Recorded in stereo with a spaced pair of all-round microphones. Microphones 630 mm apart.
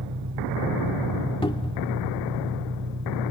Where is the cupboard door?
10° left (ahead or behind).